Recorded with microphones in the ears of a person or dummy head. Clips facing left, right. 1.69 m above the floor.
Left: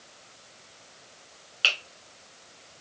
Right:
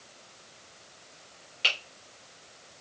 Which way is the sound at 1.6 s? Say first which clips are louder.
Left 1 dB; 15° left (ahead or behind).